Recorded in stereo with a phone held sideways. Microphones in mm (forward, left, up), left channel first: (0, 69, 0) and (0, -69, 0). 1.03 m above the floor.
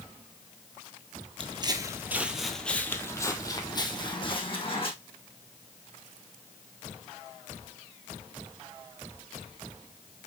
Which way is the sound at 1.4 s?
40° right (ahead or behind).